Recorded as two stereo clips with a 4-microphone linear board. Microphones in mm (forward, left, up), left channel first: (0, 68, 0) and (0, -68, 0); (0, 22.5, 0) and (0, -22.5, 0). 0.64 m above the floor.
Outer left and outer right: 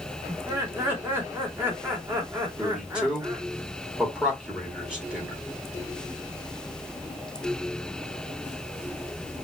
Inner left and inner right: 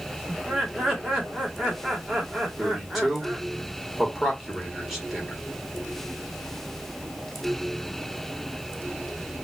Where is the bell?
I don't hear a bell.